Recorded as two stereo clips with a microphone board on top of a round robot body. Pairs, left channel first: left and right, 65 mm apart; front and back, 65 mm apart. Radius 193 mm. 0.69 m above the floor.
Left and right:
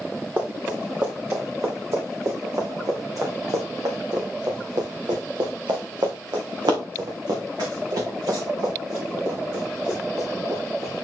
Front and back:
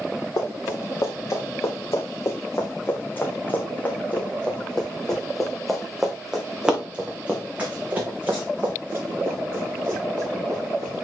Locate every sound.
0.4 s running footsteps: 35° right, 4.5 m; by 11.0 s 135° right, 5 m